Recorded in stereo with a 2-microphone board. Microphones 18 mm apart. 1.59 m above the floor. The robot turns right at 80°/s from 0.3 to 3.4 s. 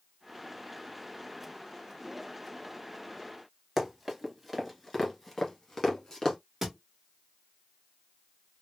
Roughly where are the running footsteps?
Centre.